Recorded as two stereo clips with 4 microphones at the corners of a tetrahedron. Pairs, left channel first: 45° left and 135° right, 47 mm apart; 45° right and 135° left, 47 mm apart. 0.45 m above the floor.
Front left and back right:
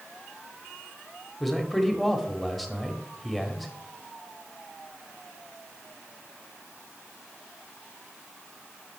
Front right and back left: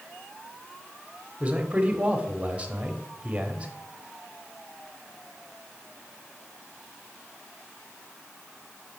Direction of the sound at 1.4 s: 125° left.